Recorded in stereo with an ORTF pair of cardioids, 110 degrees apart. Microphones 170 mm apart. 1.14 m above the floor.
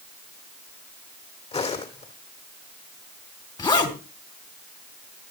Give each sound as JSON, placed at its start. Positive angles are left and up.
{"t": 1.5, "sound": "footsteps", "azimuth_deg": 35, "distance_m": 3.5}
{"t": 3.6, "sound": "a zipper", "azimuth_deg": 25, "distance_m": 3.0}